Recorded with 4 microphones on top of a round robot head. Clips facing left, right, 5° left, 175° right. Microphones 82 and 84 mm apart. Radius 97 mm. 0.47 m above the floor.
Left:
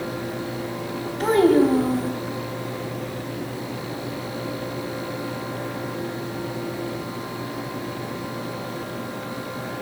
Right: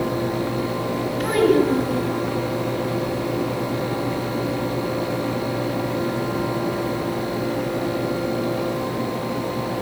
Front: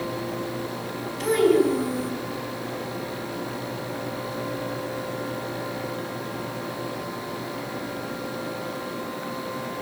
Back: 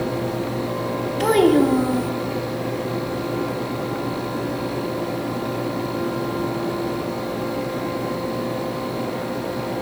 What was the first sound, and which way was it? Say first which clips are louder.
A child speaking: left 2 dB, back 3 dB; 150° left.